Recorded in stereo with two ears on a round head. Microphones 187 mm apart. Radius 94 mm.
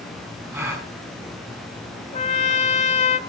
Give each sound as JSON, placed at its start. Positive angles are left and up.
{"t": 0.5, "sound": "a gasp", "side_deg": -10, "distance_m": 5.5}
{"t": 2.1, "sound": "a trumpet", "side_deg": 30, "distance_m": 1.1}